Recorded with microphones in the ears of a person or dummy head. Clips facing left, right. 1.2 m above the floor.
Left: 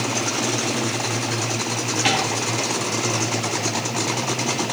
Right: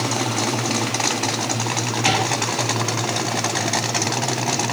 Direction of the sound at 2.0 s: 25° left (ahead or behind).